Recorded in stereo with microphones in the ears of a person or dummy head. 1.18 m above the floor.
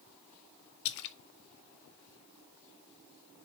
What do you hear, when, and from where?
0.8 s a splash: 65° left (ahead or behind), 0.7 m